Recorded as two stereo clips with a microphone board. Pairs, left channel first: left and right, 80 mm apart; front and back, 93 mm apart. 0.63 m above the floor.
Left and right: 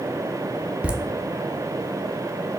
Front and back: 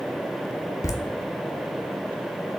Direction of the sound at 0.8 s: 25° right.